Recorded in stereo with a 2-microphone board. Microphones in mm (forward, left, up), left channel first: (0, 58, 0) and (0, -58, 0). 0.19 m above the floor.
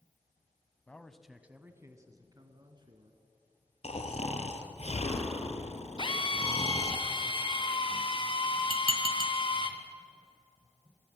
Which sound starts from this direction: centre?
A man speaking, at 0.9 s.